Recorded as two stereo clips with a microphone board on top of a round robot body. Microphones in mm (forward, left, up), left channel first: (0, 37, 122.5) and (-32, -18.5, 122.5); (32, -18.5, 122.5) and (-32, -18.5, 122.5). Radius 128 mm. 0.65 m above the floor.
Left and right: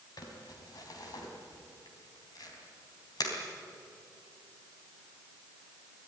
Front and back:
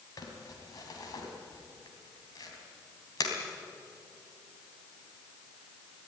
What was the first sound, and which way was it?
Crumpling, 30° left.